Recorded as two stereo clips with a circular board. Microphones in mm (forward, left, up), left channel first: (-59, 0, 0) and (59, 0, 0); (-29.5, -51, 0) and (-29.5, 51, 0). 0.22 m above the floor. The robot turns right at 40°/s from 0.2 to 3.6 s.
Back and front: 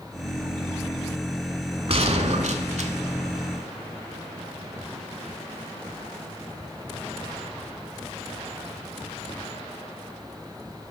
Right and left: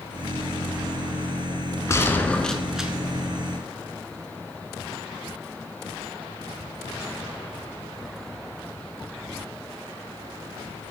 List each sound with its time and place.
1.9 s a gunshot: 30° right, 0.7 m; by 2.9 s 10° left, 0.7 m